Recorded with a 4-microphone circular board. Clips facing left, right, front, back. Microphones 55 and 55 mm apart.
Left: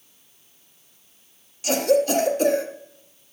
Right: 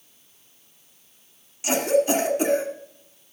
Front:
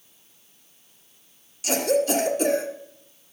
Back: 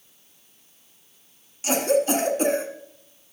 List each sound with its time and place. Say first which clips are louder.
1.6 s a cough: left 1 dB, back 1 dB; 145° right, 1.5 m